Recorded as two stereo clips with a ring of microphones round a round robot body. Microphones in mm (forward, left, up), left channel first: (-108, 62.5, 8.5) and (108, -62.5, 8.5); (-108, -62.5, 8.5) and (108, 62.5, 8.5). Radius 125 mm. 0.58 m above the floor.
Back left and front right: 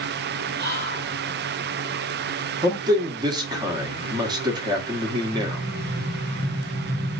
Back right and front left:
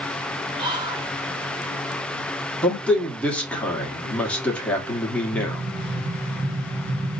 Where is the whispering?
30° right, 1.4 m.